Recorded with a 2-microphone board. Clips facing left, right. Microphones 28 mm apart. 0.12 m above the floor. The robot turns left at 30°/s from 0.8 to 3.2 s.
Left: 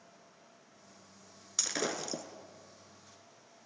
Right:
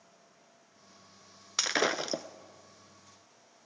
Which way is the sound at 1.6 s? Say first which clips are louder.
Right 6 dB; 35° right (ahead or behind).